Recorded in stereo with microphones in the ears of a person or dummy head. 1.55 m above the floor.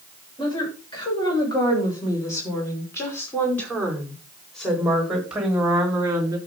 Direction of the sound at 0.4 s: 25° left (ahead or behind).